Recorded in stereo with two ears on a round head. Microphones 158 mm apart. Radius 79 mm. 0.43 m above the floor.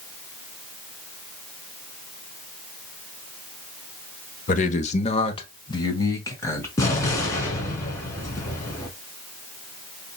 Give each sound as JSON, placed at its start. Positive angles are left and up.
{"t": 4.5, "sound": "a man speaking", "side_deg": 45, "distance_m": 1.0}
{"t": 6.8, "sound": "an explosion", "side_deg": 15, "distance_m": 2.0}